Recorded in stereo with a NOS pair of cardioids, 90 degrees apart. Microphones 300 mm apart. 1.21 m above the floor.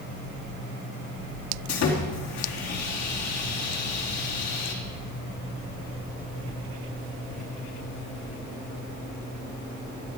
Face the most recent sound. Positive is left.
turn(degrees=60)